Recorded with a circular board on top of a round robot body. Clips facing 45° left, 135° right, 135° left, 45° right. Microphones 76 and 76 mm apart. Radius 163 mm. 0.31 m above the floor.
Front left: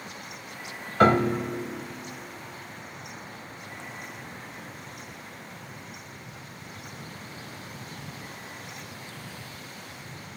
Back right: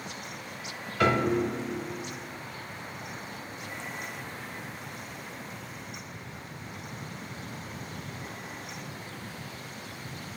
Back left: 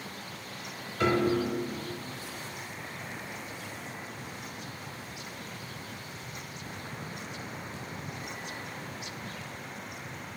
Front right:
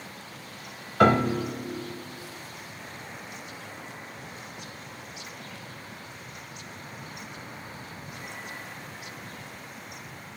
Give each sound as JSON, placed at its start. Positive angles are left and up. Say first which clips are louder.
{"t": 1.0, "sound": "a piano", "louder": "front left 4 dB, front right 5 dB", "azimuth_deg": -10, "distance_m": 0.6}